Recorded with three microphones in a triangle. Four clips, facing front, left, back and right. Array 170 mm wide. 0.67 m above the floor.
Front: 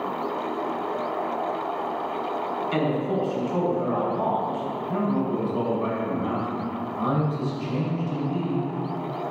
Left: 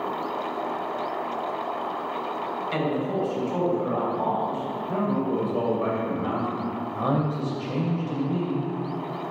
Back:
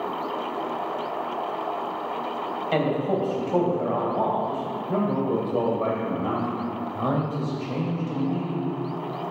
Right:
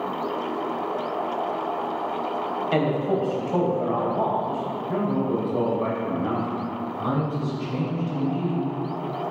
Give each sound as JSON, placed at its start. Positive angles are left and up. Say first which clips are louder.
{"t": 2.7, "sound": "a man speaking", "louder": "right 4 dB, back 2 dB", "azimuth_deg": -145, "distance_m": 3.0}
{"t": 4.9, "sound": "a man speaking", "louder": "right 1 dB, back 2 dB", "azimuth_deg": -175, "distance_m": 3.5}
{"t": 7.0, "sound": "a man speaking", "louder": "left 1 dB, front 1 dB", "azimuth_deg": 135, "distance_m": 3.0}